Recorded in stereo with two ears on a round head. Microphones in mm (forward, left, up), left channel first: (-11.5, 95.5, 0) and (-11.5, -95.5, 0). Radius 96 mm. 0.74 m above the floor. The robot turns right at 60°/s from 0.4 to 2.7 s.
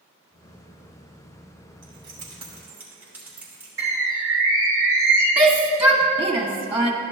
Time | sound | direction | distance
1.8 | keys jangling | 60° right (ahead or behind) | 2.5 m
3.8 | a bird | 15° right (ahead or behind) | 3 m
5.4 | a shout | 5° right (ahead or behind) | 0.9 m